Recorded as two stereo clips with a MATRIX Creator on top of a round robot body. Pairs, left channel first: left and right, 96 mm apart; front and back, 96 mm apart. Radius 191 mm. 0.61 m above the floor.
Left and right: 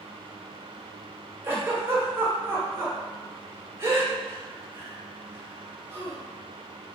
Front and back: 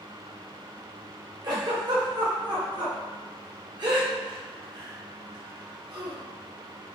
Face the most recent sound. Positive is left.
turn(degrees=-150)